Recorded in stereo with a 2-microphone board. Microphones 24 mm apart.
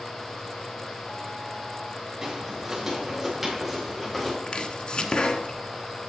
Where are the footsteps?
25° right (ahead or behind), 4.5 m; by 4.4 s 5° left (ahead or behind), 4 m.